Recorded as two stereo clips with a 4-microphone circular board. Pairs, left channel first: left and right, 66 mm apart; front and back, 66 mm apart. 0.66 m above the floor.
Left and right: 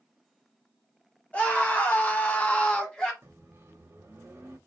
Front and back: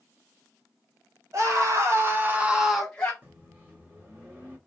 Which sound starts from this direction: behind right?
A microwave, at 3.2 s.